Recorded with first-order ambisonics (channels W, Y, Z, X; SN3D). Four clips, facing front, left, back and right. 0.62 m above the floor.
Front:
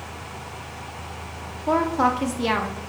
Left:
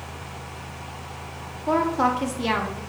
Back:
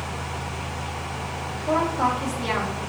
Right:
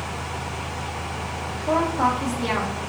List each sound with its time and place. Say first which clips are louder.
1.7 s a woman speaking: even, front 2 dB; 25° left, 0.6 m